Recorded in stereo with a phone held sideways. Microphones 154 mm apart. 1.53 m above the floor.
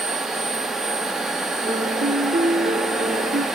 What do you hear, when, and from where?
0.0 s a machine running: 5° right (ahead or behind), 1.0 m
1.7 s a piano: 60° right (ahead or behind), 1.1 m